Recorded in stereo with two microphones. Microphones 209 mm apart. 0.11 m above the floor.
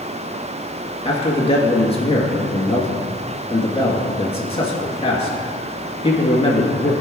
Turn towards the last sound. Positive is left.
turn(degrees=30)  # may be behind; listen again after turning